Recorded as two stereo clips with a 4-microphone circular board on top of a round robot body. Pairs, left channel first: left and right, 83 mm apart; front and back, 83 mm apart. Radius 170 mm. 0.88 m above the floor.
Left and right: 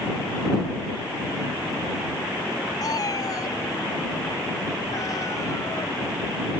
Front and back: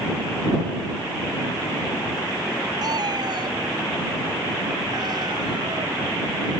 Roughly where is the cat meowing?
Behind left.